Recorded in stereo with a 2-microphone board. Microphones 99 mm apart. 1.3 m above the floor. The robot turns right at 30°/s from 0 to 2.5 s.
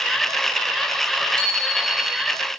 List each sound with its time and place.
1.4 s a bicycle bell: 40° right (ahead or behind), 7 m; by 2.3 s 65° right (ahead or behind), 7 m